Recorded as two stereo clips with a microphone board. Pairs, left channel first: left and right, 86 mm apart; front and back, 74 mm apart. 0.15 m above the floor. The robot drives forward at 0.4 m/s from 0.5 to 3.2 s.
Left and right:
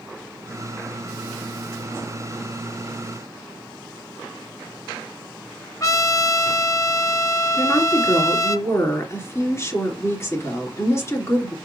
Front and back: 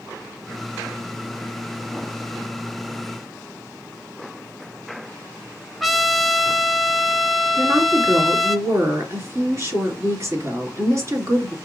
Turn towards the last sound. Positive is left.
turn(degrees=140)